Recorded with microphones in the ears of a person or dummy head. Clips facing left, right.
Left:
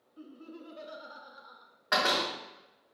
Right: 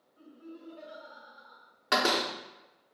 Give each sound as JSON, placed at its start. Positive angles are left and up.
{"t": 0.2, "sound": "laughter", "side_deg": 80, "distance_m": 0.6}
{"t": 1.9, "sound": "a door slam", "side_deg": -30, "distance_m": 0.7}